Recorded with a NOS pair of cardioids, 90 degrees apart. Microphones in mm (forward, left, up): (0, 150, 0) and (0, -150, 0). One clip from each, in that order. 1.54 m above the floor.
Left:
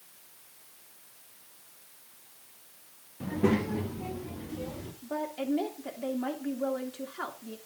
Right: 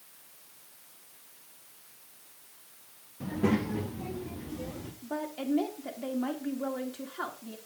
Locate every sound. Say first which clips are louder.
3.2 s a child speaking: left 2 dB; 5° left, 1.2 m
5.0 s a woman speaking: left 2 dB; straight ahead, 2.5 m